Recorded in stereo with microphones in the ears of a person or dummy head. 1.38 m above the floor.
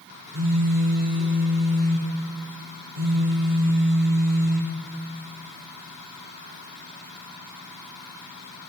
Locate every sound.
0.3 s a phone buzzing: 80° right, 2.5 m